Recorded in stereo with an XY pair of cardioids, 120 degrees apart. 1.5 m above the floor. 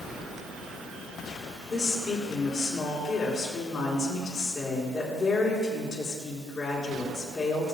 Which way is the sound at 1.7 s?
50° left.